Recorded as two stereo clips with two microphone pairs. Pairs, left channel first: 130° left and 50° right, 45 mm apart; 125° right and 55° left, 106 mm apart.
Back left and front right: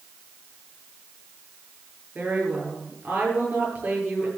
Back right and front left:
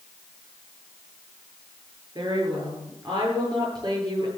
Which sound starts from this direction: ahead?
A woman speaking, at 2.1 s.